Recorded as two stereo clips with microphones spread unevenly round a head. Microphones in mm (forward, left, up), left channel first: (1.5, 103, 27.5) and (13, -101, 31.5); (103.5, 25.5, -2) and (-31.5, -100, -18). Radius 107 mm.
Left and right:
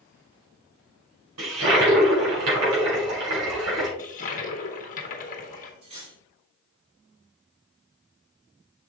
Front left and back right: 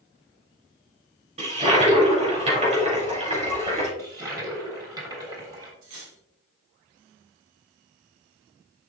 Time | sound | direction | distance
1.4 | a toilet flushing | 85° right | 3.5 m
4.0 | a toilet flushing | 145° left | 1.3 m
5.8 | cutlery clinking | 150° right | 3.5 m